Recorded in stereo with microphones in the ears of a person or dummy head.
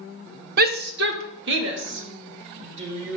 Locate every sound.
0.6 s a shout: 50° right (ahead or behind), 0.8 m; by 3.2 s 75° right (ahead or behind), 4 m